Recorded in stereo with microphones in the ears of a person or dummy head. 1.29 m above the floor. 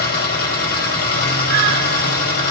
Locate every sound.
0.0 s an engine running: 60° left (ahead or behind), 4.5 m